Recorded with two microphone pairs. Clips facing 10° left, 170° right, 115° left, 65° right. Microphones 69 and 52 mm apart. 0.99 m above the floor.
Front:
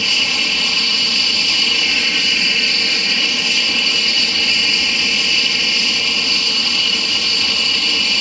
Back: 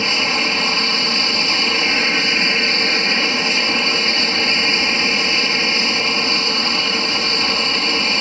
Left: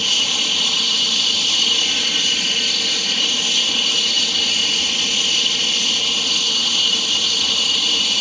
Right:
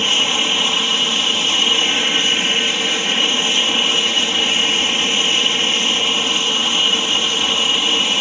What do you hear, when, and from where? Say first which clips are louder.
0.0 s an aircraft: back 2 dB, right 3 dB; 120° right